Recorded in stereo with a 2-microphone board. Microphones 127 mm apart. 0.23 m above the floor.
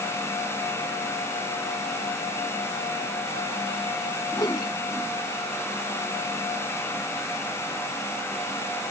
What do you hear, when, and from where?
4.3 s a whoosh: 35° left (ahead or behind)